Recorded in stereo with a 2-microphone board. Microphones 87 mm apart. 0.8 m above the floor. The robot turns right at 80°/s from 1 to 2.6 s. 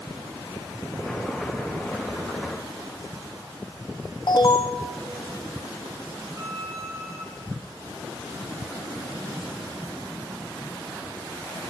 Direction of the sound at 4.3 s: 55° left (ahead or behind).